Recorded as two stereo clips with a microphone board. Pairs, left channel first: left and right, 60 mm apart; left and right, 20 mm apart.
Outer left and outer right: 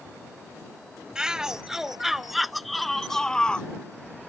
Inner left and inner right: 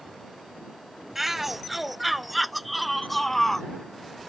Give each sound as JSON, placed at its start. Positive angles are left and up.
{"t": 1.1, "sound": "a shout", "side_deg": -10}